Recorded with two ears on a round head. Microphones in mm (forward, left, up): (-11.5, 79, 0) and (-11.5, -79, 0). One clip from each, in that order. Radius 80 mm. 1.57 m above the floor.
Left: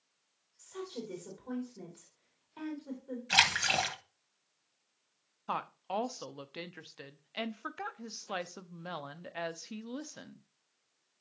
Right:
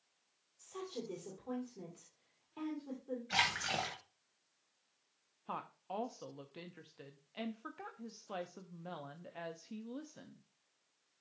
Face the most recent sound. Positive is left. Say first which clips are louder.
# left 8 dB
turn(degrees=50)  # may be behind; listen again after turning